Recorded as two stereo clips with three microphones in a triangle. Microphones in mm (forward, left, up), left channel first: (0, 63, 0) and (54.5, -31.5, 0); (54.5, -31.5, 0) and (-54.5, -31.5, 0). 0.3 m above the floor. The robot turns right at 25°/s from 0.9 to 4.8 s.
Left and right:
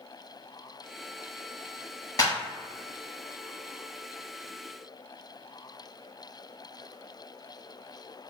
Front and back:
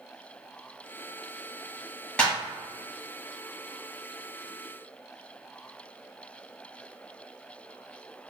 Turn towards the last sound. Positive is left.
turn(degrees=145)